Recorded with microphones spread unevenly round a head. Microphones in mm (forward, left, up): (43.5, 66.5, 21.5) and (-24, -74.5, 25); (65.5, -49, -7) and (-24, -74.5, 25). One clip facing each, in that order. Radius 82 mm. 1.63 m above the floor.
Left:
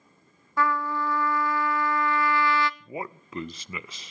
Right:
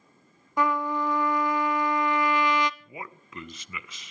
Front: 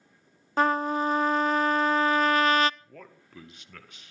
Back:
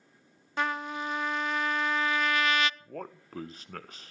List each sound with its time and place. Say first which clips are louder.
0.6 s a trumpet: right 1 dB, front 8 dB; 45° right, 0.5 m
2.8 s a man speaking: left 6 dB, back 7 dB; 125° left, 0.7 m